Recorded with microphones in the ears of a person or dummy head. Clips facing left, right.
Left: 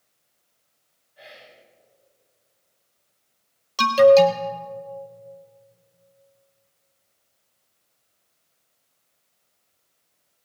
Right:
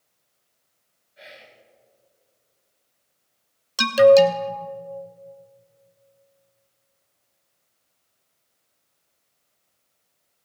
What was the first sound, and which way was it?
Whispering, 20° right (ahead or behind).